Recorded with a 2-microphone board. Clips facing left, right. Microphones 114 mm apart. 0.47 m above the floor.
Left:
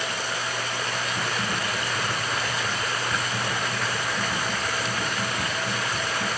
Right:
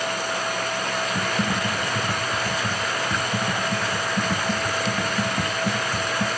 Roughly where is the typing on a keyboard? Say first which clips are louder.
Right 4 dB; right.